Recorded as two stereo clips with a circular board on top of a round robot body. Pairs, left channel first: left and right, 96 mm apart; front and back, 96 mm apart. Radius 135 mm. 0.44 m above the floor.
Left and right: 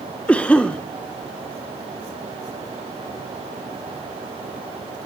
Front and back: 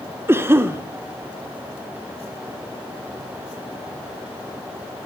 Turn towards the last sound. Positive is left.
turn(degrees=155)